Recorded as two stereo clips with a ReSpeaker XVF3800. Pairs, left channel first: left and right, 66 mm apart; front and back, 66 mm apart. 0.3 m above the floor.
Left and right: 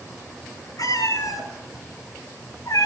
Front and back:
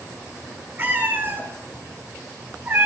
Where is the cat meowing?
115° left, 6 m; by 2.9 s 110° left, 3.5 m.